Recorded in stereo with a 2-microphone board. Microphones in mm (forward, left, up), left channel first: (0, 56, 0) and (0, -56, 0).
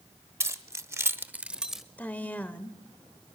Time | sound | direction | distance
0.4 | keys jangling | 25° right (ahead or behind) | 1.0 m
2.0 | a woman speaking | 15° left (ahead or behind) | 1.2 m